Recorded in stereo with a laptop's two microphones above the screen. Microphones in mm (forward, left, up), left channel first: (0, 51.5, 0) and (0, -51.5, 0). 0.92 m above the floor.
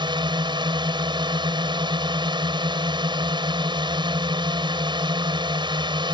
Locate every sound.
0.0 s a drone: 45° right (ahead or behind)